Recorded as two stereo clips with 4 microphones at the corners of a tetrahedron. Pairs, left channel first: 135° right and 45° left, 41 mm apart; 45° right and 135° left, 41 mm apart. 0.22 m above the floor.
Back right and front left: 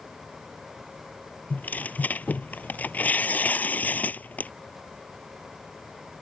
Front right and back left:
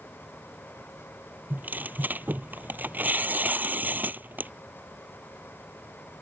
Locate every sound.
1.5 s tearing paper: 175° left